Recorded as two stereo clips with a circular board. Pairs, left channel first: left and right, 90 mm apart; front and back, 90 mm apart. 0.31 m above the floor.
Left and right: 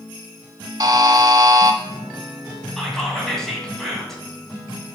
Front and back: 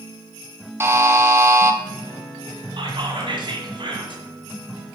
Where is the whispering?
175° left, 1.7 m.